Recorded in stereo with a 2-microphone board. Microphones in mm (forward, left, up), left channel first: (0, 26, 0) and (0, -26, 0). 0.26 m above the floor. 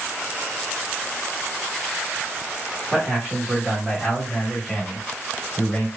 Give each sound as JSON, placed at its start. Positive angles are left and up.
{"t": 2.9, "sound": "a man speaking", "side_deg": -5, "distance_m": 1.8}